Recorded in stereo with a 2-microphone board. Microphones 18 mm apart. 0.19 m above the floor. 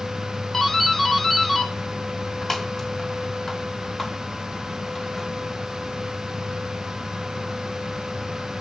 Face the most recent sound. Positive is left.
turn(degrees=25)  # may be behind; listen again after turning